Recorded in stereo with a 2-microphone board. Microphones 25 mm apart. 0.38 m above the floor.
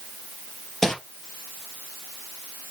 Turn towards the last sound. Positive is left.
turn(degrees=15)  # may be behind; listen again after turning